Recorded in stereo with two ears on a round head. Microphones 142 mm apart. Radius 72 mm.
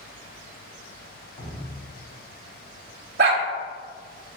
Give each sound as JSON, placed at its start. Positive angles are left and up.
{"t": 1.4, "sound": "dripping", "side_deg": 60, "distance_m": 1.7}
{"t": 3.2, "sound": "a dog barking", "side_deg": -70, "distance_m": 0.7}